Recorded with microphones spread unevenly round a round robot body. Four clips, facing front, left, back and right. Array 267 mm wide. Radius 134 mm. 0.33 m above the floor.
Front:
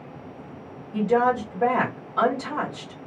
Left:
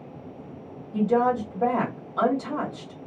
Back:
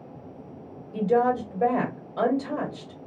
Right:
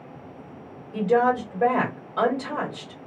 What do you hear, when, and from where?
0.9 s a woman speaking: 130° right, 1.6 m